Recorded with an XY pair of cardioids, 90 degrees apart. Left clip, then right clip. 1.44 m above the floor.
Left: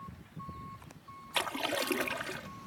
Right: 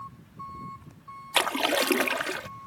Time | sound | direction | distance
1.3 | a splash | 65° right | ?